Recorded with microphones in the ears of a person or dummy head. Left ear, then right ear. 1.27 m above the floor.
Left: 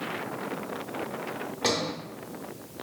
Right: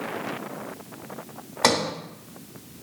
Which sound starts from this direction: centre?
A sliding door, at 1.6 s.